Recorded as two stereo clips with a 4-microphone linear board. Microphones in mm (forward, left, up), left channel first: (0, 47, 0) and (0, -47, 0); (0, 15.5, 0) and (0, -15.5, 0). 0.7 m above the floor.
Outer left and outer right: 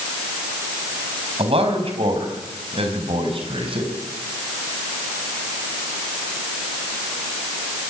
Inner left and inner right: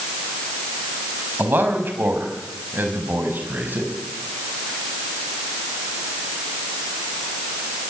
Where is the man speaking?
80° right, 4.5 m; by 3.9 s 65° right (ahead or behind), 5 m.